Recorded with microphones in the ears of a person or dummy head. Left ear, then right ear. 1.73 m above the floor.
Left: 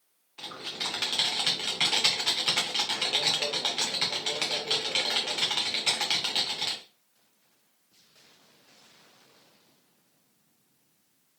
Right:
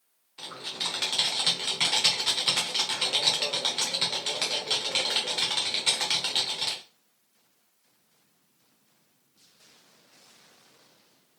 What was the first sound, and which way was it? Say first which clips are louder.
Typing on a keyboard: right 1 dB; 10° left (ahead or behind).